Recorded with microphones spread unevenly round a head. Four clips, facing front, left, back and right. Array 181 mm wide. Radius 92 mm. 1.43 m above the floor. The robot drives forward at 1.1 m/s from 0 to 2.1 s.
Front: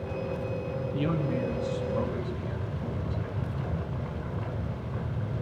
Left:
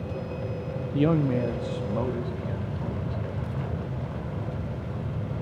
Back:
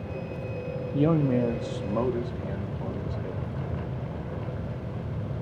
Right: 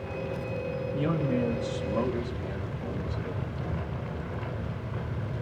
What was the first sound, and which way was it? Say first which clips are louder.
A man speaking: left 6 dB, back 7 dB; 135° left.